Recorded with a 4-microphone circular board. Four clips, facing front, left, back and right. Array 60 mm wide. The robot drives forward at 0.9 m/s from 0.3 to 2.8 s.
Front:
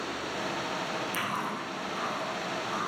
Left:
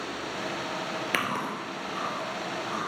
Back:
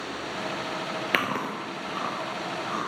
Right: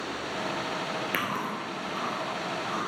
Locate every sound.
1.1 s chewing: 170° left, 0.8 m; by 2.9 s 175° left, 2.5 m